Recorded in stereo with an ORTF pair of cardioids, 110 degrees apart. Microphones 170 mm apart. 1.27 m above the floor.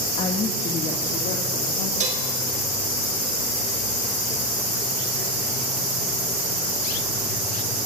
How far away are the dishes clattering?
About 4 m.